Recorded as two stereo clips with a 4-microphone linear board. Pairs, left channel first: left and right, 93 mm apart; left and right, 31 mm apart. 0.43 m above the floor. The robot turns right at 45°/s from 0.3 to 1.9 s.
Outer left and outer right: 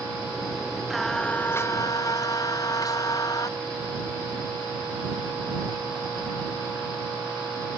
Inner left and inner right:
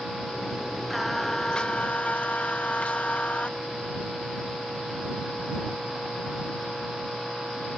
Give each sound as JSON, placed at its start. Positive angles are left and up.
{"t": 0.9, "sound": "singing", "azimuth_deg": 0}